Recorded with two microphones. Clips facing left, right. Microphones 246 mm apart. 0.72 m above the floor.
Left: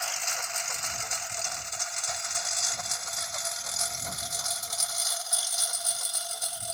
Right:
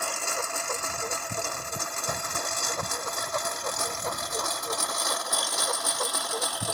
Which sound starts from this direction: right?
A lawn mower, at 0.0 s.